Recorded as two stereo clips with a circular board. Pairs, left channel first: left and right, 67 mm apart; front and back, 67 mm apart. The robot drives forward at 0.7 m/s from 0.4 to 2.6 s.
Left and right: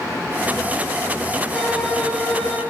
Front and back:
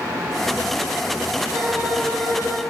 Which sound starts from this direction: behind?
A violin, at 1.5 s.